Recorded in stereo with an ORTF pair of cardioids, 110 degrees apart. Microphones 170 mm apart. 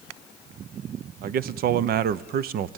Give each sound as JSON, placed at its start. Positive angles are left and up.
{"t": 1.2, "sound": "a man speaking", "azimuth_deg": -65, "distance_m": 0.9}